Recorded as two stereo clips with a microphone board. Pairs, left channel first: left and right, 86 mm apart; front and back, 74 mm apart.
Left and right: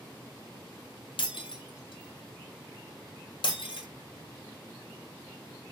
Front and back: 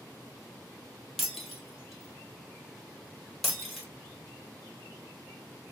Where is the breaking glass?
90° left, 1.2 m.